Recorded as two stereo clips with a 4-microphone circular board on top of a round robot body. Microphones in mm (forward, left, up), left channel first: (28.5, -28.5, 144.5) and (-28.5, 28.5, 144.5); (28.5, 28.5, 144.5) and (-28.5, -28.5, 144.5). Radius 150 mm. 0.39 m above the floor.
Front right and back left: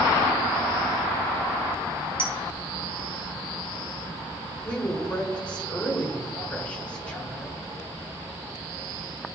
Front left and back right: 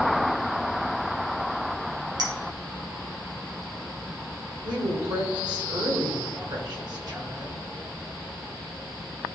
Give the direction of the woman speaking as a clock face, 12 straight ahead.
4 o'clock.